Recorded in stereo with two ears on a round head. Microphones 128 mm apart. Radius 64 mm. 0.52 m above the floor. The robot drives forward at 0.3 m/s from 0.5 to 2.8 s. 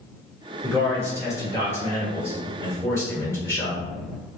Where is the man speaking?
25° left (ahead or behind), 1.9 m; by 3.9 s 20° left (ahead or behind), 2.5 m.